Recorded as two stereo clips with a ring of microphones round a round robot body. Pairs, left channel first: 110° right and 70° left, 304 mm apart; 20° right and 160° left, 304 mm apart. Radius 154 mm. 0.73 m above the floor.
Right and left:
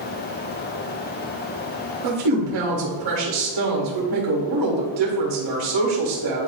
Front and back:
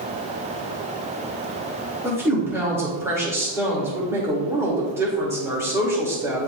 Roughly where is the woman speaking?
Left.